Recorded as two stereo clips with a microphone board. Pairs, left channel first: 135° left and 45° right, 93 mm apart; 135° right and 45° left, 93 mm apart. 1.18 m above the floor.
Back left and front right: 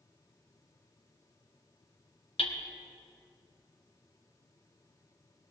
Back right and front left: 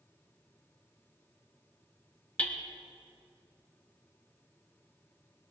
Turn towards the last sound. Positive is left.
turn(degrees=150)